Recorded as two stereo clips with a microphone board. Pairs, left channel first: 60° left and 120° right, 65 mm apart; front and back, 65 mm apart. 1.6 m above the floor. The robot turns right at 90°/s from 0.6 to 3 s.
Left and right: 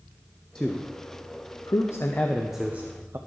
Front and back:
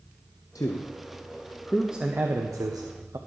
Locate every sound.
0.6 s a man speaking: 15° right, 0.8 m; by 3.2 s 160° right, 0.8 m